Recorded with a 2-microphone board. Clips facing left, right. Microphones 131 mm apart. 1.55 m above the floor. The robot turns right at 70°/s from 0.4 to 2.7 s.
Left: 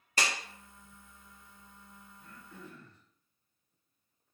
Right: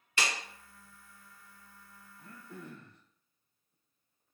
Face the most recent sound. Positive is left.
turn(degrees=-85)